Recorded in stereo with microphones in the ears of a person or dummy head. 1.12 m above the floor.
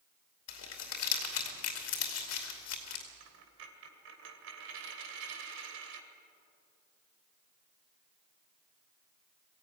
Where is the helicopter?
I don't hear a helicopter.